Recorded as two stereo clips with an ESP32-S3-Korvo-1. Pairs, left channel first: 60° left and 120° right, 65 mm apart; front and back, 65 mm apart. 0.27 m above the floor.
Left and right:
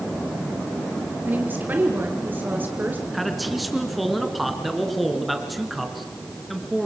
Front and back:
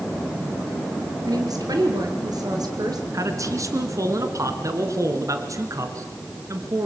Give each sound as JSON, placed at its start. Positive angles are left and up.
{"t": 1.3, "sound": "a woman speaking", "azimuth_deg": 180, "distance_m": 4.5}
{"t": 3.1, "sound": "a man speaking", "azimuth_deg": 150, "distance_m": 3.0}